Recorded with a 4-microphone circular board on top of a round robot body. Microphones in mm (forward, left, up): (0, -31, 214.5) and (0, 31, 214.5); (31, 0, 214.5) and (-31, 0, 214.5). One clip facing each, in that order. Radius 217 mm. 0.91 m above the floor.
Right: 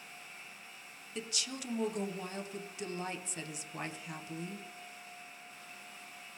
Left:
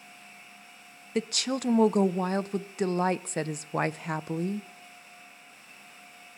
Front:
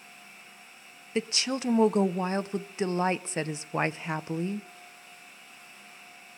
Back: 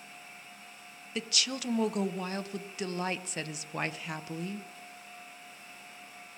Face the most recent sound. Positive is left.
turn(degrees=65)